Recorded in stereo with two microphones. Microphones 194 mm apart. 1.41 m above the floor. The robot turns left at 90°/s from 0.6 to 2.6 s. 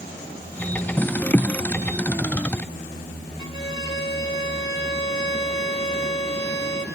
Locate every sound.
3.4 s a violin: 70° left (ahead or behind), 2.0 m